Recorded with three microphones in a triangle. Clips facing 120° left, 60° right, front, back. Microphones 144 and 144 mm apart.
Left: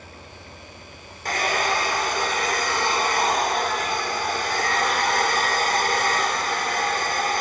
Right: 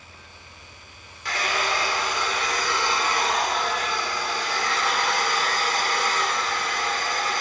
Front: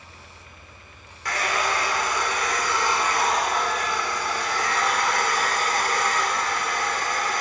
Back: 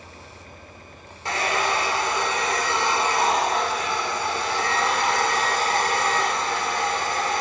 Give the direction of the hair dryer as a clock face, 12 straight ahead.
8 o'clock.